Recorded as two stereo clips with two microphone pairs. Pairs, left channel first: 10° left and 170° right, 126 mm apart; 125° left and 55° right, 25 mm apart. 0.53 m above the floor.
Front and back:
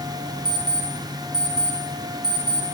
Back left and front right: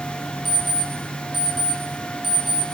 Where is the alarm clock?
125° right, 1.1 m.